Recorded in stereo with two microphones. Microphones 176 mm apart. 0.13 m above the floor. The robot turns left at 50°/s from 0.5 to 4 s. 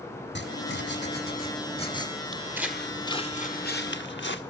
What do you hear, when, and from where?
0.3 s writing: 100° left, 3 m; by 2.1 s 20° left, 3 m
2.3 s footsteps: 25° right (ahead or behind), 1.0 m; by 4.4 s 80° left, 1.9 m